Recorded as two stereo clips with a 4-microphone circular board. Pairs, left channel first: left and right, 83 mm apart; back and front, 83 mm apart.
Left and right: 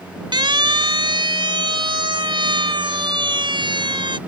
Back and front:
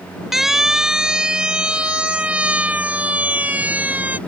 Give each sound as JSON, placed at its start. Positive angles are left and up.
{"t": 0.3, "sound": "a siren", "azimuth_deg": -85}